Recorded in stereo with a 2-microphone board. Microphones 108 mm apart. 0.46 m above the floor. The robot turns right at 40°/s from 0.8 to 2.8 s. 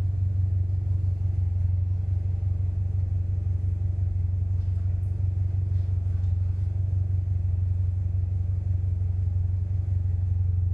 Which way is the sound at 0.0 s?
50° right.